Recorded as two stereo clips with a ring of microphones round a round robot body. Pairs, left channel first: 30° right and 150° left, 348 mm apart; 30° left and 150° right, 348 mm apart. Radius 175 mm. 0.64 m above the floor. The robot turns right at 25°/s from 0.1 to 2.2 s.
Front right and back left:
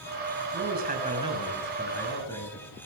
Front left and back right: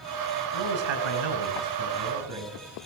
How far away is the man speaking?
About 7.5 m.